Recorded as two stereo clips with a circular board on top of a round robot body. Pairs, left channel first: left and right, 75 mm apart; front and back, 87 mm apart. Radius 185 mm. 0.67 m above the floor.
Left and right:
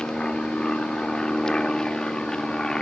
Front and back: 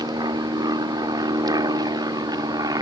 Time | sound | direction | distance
0.0 | an aircraft | 165° left | ?